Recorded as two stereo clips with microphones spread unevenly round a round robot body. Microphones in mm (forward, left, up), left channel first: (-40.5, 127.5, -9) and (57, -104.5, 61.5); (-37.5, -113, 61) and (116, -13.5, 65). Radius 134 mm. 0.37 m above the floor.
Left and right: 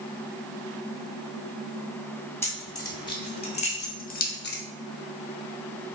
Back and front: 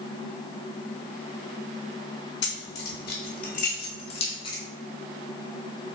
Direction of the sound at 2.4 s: 170° right.